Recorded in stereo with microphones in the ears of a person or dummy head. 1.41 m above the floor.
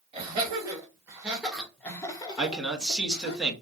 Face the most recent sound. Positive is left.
turn(degrees=-5)  # may be behind; listen again after turning